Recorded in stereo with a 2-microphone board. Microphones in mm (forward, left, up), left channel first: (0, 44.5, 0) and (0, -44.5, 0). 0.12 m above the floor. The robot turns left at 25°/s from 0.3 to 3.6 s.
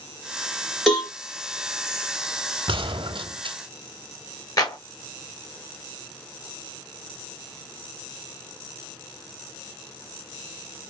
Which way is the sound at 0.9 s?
Centre (ahead or behind).